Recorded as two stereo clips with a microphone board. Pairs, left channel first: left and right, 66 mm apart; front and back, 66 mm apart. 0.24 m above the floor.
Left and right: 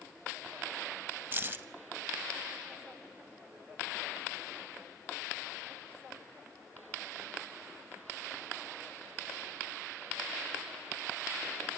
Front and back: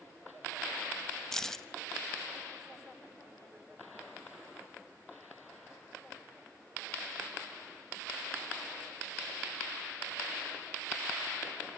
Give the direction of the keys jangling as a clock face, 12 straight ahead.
3 o'clock.